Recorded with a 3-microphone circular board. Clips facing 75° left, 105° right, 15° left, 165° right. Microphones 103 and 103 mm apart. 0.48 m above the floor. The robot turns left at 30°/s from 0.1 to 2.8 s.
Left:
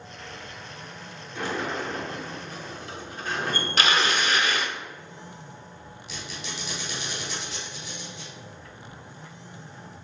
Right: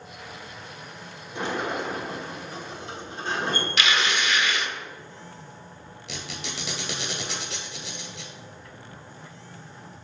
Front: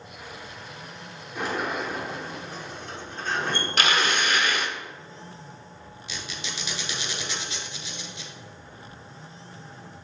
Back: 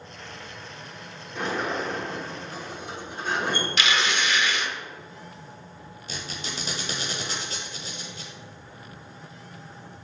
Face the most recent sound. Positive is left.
turn(degrees=-115)